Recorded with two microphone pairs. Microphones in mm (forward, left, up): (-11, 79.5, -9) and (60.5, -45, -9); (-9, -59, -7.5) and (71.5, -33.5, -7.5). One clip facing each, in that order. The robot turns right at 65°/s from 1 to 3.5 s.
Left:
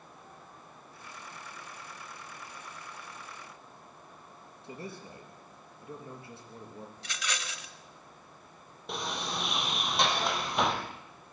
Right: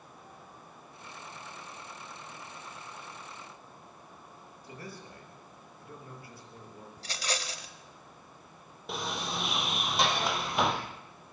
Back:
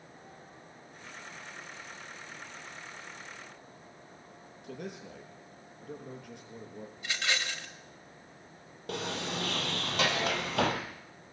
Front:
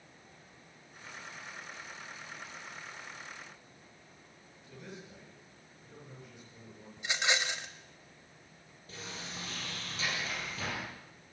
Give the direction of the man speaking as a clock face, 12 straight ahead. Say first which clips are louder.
Left 3 dB, back 7 dB; 6 o'clock.